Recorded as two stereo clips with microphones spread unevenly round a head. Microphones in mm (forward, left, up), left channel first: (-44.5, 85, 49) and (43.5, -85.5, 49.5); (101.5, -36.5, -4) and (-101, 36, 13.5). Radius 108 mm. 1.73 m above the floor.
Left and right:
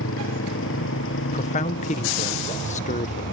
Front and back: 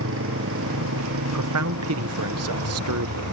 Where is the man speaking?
170° left.